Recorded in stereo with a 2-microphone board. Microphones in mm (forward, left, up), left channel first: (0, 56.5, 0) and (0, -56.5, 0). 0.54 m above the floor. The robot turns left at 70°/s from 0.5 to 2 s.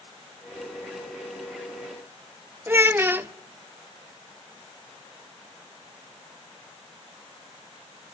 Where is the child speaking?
20° right (ahead or behind), 0.6 m.